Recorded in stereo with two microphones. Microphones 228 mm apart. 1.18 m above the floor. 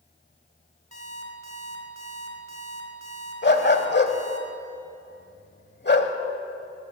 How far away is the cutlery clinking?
No cutlery clinking in this recording.